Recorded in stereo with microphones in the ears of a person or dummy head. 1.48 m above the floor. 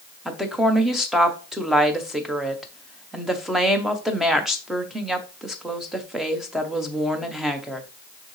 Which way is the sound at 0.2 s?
5° left (ahead or behind).